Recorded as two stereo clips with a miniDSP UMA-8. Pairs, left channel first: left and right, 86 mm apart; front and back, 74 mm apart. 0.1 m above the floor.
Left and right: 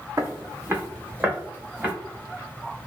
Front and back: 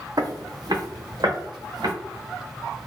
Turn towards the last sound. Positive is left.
turn(degrees=-160)